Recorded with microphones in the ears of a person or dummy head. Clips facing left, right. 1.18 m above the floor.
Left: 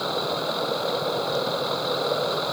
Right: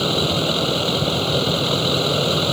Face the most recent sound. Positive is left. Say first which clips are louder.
# right 6 dB
turn(degrees=-40)  # may be behind; listen again after turning